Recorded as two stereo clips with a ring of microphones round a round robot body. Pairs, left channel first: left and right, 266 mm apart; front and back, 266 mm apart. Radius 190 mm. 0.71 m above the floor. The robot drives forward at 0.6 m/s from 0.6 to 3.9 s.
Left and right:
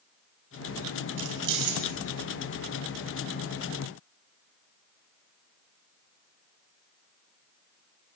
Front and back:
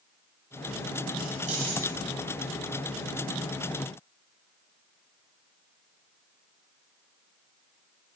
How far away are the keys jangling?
About 1.8 m.